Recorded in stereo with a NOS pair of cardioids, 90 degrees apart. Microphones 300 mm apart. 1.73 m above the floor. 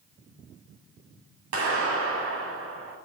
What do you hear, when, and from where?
1.5 s a clap: 50° right, 2.0 m